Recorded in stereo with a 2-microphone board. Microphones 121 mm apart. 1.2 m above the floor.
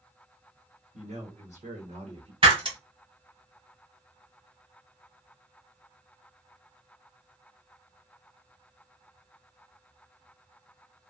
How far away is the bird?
No bird in this recording.